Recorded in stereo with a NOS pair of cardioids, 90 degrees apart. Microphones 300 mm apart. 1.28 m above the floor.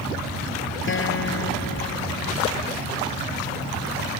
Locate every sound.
0.9 s a guitar: 40° left